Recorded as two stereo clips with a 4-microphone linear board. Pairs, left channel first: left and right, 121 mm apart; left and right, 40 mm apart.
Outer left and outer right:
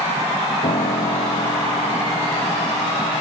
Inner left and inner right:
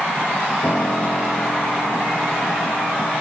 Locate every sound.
0.6 s a piano: 75° left (ahead or behind)